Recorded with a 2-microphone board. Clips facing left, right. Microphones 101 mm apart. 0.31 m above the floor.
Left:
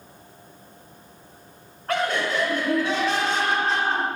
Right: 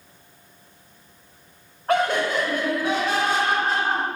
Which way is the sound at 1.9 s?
20° right (ahead or behind).